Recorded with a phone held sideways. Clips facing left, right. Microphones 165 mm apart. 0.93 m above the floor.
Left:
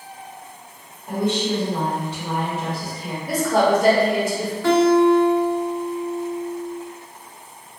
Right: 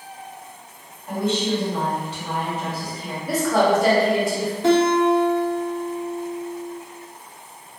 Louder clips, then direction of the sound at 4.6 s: Left 2 dB; 20° right (ahead or behind).